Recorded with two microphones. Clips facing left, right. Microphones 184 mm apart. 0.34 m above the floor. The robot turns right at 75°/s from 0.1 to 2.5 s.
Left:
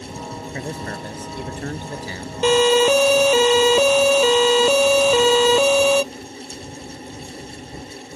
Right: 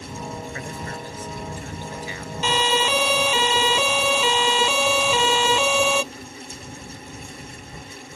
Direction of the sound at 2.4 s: 55° left (ahead or behind).